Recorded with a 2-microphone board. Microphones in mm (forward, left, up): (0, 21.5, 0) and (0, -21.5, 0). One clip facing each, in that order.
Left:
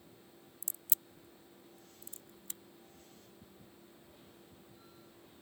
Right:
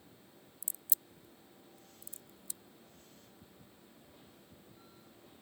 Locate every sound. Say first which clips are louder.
0.6 s a crack: left 1 dB; 55° left (ahead or behind)